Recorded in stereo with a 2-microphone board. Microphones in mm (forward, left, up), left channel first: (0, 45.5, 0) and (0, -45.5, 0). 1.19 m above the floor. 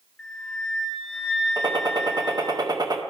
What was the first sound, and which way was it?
A flute, 10° left (ahead or behind).